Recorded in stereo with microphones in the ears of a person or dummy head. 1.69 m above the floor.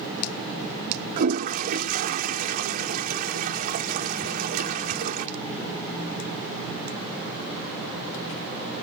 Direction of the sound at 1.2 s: 50° right (ahead or behind).